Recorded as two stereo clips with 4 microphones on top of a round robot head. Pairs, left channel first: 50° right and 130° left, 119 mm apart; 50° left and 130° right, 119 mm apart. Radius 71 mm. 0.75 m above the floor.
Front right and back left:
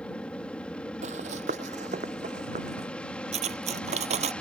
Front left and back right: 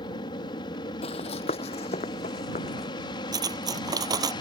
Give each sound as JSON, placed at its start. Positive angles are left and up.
{"t": 0.0, "sound": "an aircraft", "azimuth_deg": 25}
{"t": 1.0, "sound": "running footsteps", "azimuth_deg": 95}
{"t": 3.3, "sound": "cutlery clinking", "azimuth_deg": 170}